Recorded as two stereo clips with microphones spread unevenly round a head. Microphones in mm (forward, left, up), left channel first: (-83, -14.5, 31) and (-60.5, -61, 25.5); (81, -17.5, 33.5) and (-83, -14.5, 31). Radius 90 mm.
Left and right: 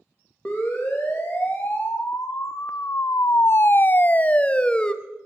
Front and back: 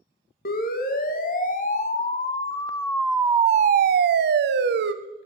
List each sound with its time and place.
0.5 s a siren: 35° left, 2 m; by 4.9 s 170° right, 1.3 m